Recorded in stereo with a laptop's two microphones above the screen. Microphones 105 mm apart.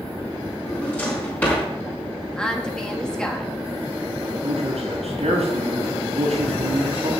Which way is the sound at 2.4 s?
10° left (ahead or behind).